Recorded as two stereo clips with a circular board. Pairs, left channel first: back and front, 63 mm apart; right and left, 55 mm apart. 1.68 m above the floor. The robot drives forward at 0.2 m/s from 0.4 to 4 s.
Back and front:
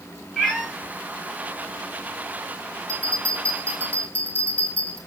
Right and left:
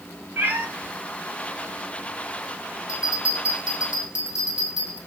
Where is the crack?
I don't hear a crack.